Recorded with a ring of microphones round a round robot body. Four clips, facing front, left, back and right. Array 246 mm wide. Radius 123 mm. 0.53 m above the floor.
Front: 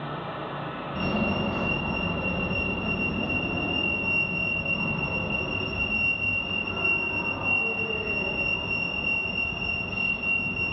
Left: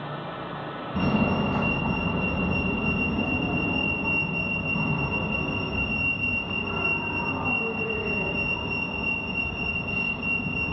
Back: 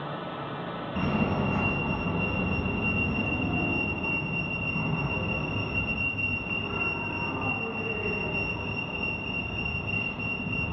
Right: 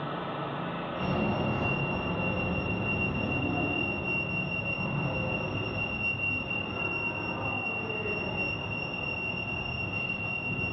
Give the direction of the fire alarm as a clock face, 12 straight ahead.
9 o'clock.